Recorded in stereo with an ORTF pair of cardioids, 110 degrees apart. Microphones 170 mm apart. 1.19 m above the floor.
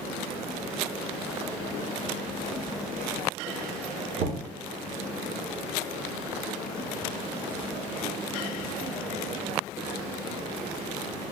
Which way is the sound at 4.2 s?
55° right.